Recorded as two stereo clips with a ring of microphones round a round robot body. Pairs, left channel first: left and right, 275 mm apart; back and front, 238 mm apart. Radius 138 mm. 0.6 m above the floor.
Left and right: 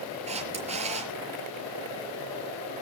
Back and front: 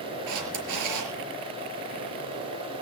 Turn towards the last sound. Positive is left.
turn(degrees=-20)